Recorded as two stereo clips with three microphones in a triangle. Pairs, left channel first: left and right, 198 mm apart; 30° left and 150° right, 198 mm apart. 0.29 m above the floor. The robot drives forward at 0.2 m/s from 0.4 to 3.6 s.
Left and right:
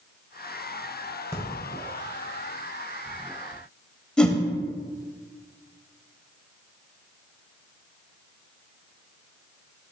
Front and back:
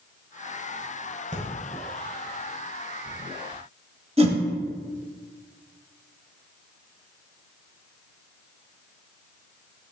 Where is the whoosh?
175° left, 0.7 m.